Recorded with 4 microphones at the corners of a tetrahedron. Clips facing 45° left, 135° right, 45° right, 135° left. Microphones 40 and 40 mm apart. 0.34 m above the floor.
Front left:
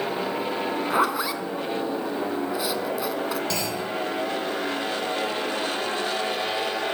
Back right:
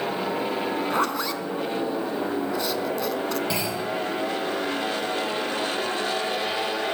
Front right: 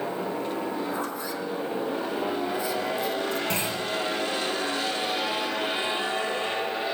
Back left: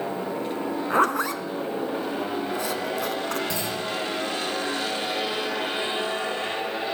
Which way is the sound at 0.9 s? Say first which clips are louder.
Front left 5 dB, back left 9 dB; 125° left.